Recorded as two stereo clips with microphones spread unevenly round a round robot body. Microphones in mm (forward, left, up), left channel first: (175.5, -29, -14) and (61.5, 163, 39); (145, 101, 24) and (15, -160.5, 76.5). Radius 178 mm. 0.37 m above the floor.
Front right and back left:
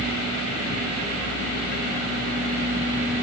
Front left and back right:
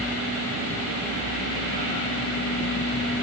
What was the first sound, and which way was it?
Only background noise.